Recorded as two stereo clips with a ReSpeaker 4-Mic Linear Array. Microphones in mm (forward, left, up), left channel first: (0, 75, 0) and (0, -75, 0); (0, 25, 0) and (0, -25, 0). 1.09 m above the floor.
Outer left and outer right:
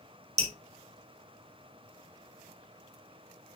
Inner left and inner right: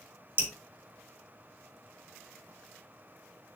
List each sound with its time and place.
0.4 s dripping: 45° right (ahead or behind), 2 m